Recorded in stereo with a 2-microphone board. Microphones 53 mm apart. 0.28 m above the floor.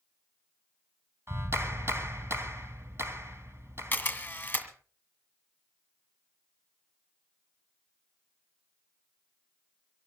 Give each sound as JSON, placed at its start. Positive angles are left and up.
{"t": 1.3, "sound": "a clap", "side_deg": -55, "distance_m": 2.5}
{"t": 3.9, "sound": "a camera shutter", "side_deg": 35, "distance_m": 1.8}